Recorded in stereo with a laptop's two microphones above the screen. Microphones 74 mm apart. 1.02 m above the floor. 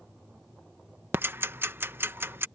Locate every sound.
1.1 s ticking: 30° right (ahead or behind)